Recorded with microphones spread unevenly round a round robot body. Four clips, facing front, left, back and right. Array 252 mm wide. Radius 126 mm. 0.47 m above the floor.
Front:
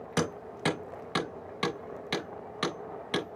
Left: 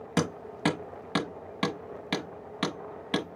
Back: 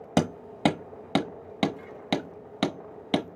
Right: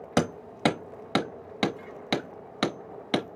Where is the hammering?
165° right, 1.1 m.